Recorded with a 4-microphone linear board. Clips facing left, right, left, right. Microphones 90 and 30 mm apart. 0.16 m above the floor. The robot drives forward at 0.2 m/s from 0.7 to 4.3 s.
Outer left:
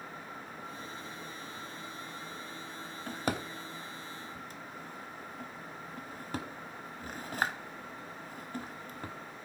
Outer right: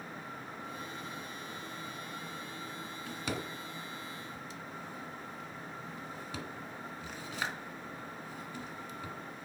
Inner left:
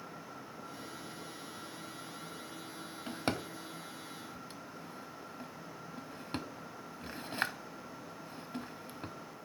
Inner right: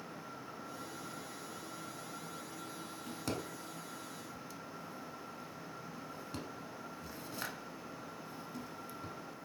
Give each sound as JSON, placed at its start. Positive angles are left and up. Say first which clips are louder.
{"t": 3.1, "sound": "a drawer", "louder": "outer left 4 dB, inner left 5 dB", "side_deg": 45, "distance_m": 0.6}